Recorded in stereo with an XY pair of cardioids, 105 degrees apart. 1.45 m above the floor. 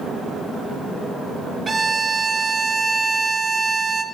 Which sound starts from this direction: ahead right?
A violin, at 1.7 s.